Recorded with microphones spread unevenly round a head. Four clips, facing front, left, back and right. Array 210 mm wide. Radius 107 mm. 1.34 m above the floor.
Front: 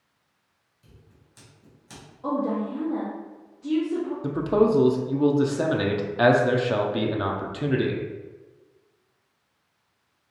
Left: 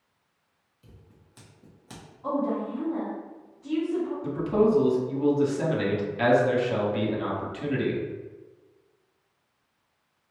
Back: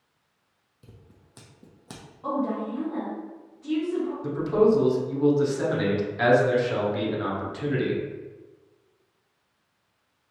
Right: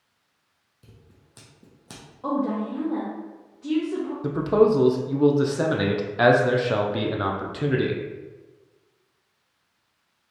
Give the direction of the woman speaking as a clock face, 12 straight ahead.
3 o'clock.